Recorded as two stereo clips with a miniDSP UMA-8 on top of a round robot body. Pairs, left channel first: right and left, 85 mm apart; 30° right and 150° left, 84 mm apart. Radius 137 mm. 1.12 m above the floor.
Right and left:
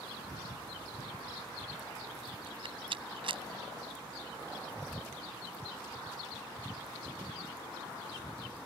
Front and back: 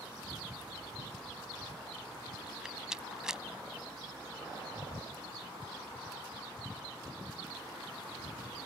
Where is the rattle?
70° left.